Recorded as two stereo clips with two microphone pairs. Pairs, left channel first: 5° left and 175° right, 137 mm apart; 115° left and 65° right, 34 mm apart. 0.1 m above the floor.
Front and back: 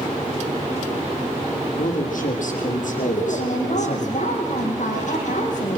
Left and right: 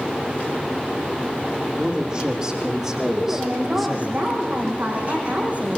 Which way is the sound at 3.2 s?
15° right.